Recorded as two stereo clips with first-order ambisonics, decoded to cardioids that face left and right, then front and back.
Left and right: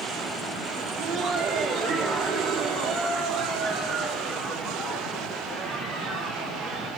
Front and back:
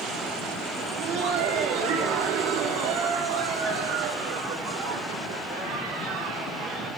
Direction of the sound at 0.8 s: 160° right.